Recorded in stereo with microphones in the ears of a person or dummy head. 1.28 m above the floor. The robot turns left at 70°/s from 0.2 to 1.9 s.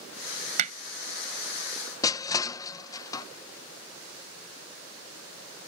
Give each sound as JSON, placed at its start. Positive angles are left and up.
{"t": 0.6, "sound": "hammering", "side_deg": -35}
{"t": 2.0, "sound": "crushing", "side_deg": 25}